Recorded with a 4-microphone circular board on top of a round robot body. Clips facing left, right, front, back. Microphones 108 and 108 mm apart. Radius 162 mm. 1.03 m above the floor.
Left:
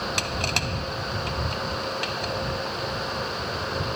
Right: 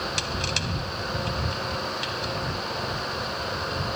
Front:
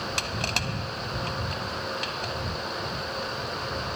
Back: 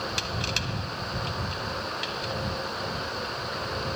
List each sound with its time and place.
0.2 s crushing: 45° left